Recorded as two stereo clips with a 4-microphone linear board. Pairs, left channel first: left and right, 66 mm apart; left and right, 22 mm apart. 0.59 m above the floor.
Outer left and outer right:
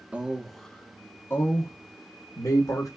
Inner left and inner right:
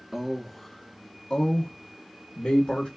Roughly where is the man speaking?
Centre.